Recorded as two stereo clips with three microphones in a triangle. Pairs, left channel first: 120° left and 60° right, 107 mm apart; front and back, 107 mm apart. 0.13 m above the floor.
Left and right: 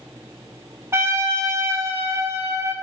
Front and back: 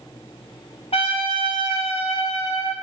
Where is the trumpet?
Straight ahead, 0.7 m.